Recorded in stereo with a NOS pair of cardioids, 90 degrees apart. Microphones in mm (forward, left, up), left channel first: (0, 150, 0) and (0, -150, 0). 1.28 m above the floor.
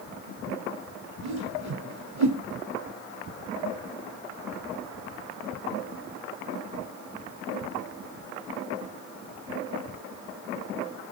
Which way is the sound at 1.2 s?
60° right.